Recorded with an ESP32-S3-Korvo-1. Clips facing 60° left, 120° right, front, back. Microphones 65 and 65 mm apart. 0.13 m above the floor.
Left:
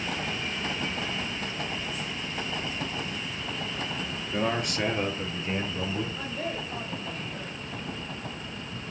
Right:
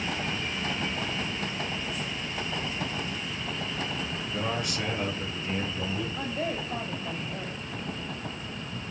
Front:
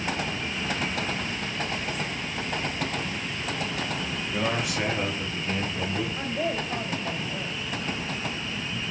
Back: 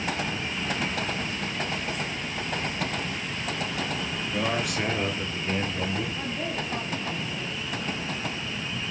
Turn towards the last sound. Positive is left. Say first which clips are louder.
# right 2 dB, front 3 dB
turn(degrees=-55)